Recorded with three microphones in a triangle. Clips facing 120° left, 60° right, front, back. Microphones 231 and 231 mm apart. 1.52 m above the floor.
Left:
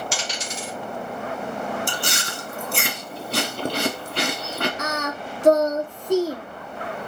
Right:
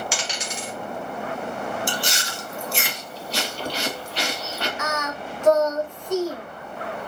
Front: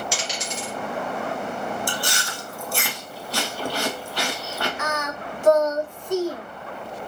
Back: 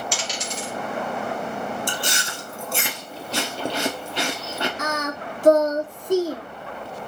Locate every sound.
0.1 s a dropped coin: 80° left, 2.5 m
1.9 s chewing: 120° left, 0.7 m
4.8 s singing: 155° left, 0.6 m